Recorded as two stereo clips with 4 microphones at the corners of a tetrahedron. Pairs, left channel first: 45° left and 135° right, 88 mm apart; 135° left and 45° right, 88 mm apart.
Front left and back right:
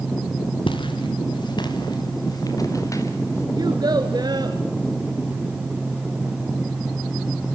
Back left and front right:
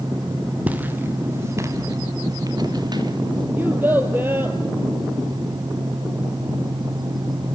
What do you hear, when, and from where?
0.7 s footsteps: 30° left, 3.5 m; by 3.5 s 10° right, 4.5 m
3.6 s a child speaking: 110° right, 1.3 m